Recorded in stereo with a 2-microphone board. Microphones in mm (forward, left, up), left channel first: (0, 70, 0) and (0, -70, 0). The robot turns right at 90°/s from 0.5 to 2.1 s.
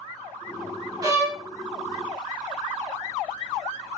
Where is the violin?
35° right, 0.8 m; by 1.4 s straight ahead, 0.8 m.